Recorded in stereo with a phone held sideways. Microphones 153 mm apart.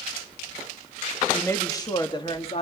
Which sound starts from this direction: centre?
A woman speaking, at 1.3 s.